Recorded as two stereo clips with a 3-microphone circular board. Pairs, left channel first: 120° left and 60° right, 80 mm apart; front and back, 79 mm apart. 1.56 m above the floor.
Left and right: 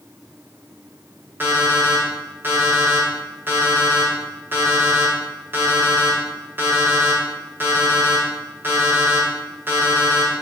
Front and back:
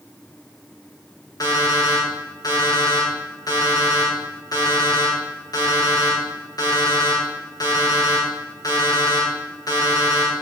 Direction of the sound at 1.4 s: 5° right.